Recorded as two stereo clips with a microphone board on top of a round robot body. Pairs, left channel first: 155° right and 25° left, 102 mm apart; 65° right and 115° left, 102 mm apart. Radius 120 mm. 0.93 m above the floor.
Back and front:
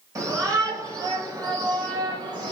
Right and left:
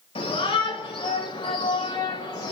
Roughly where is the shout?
Ahead right.